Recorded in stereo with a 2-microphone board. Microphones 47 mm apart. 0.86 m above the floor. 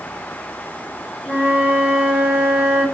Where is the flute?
20° right (ahead or behind), 1.1 m.